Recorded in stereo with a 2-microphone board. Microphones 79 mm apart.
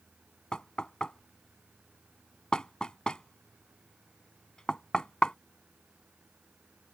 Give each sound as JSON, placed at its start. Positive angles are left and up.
{"t": 0.5, "sound": "knocking", "side_deg": 10}